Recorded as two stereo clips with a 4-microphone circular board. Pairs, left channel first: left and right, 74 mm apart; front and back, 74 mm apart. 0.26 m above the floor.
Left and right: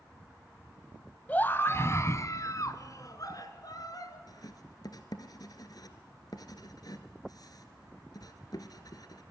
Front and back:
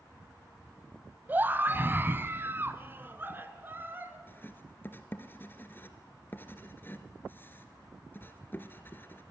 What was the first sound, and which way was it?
A scream, 140° left.